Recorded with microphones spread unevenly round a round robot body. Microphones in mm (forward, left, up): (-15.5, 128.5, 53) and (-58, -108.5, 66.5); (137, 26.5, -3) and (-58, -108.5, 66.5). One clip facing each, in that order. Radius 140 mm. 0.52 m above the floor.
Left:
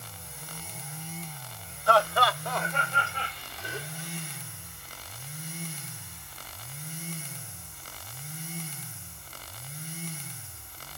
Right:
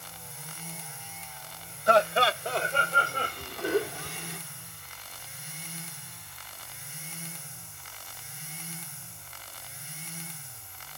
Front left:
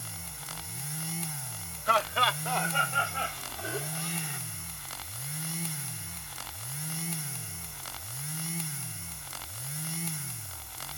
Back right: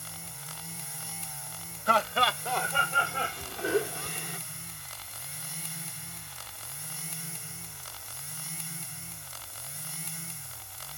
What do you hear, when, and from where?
1.9 s laughter: 170° right; by 4.4 s 85° right